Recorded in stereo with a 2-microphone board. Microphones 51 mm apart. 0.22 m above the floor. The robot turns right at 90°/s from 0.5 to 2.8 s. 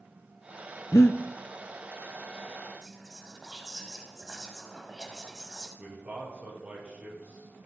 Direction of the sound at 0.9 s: 75° left (ahead or behind).